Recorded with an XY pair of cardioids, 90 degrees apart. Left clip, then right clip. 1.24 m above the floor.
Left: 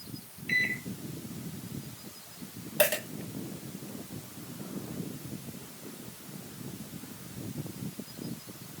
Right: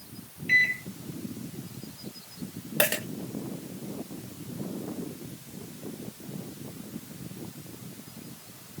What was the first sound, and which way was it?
A microwave, 10° right.